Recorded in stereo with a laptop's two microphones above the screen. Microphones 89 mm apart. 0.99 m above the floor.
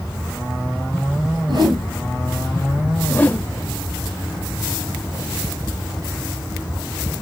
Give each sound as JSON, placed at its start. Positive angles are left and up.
{"t": 1.5, "sound": "a whoosh", "side_deg": -65, "distance_m": 3.0}
{"t": 3.1, "sound": "a whoosh", "side_deg": 20, "distance_m": 0.8}